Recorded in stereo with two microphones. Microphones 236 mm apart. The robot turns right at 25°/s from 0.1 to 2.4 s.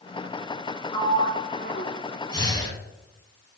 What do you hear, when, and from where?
0.9 s a sliding door: 20° left (ahead or behind), 0.8 m; by 1.9 s 40° left (ahead or behind), 0.8 m
2.3 s breathing: 20° left (ahead or behind), 0.9 m